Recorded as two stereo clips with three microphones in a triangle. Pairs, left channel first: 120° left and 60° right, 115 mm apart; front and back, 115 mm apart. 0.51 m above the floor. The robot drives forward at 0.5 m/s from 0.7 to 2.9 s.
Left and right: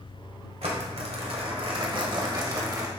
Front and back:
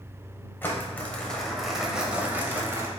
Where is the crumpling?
70° right, 1.3 m; by 2.9 s 115° right, 1.4 m.